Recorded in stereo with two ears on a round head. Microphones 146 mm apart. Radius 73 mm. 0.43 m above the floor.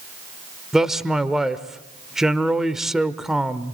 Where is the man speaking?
5° right (ahead or behind), 1.0 m.